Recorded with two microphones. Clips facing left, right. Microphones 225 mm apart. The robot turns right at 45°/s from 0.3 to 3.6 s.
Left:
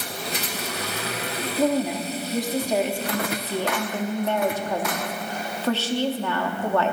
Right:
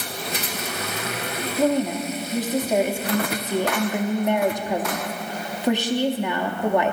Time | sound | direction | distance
1.6 | a woman speaking | 10° left (ahead or behind) | 0.7 m